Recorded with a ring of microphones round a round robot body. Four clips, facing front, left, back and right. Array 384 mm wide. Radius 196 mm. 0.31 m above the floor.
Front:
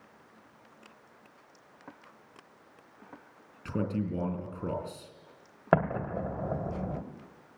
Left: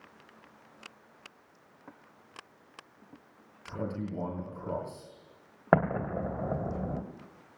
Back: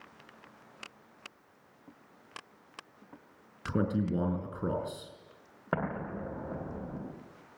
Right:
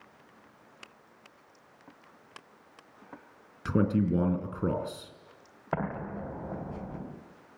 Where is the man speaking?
100° right, 5 m.